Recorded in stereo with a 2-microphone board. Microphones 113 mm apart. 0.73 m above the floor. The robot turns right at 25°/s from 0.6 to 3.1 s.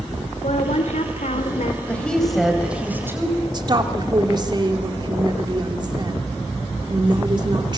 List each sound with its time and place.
0.4 s a woman speaking: 70° left (ahead or behind), 2 m
1.9 s a woman speaking: 170° left, 4.5 m; by 3.4 s 160° right, 4.5 m
3.5 s a woman speaking: 40° right (ahead or behind), 2.5 m